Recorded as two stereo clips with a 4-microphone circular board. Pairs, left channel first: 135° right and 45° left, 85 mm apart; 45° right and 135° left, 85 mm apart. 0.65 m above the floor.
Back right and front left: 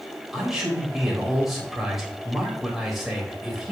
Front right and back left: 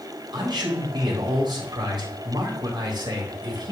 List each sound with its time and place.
0.3 s a man speaking: 130° left, 3.5 m